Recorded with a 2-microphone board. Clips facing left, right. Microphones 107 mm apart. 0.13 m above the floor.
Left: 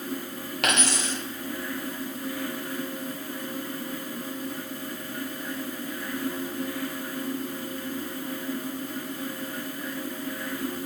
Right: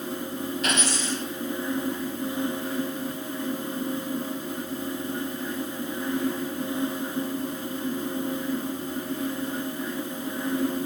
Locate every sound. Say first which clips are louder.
0.6 s a dropped coin: left 3 dB; 80° left, 1.2 m